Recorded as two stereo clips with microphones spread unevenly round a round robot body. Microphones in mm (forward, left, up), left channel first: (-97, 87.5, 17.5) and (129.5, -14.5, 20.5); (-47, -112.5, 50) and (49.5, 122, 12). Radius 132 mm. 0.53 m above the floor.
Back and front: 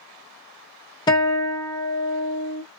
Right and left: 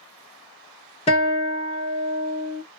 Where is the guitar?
165° right, 1.3 m.